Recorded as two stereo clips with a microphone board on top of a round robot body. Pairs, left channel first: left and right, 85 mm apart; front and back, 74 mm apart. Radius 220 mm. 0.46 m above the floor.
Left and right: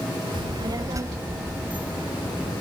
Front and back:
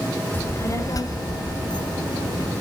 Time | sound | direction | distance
0.3 | a child speaking | 65° right | 1.8 m